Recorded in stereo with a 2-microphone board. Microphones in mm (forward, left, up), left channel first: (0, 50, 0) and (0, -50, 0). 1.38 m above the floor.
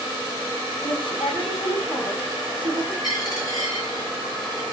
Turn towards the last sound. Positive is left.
turn(degrees=45)  # may be behind; listen again after turning